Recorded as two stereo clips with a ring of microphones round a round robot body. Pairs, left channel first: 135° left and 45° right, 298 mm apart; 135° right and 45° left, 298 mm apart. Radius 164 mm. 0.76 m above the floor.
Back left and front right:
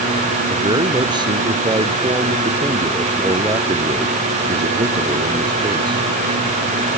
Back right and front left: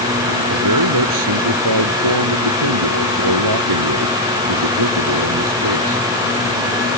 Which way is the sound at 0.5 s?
30° left.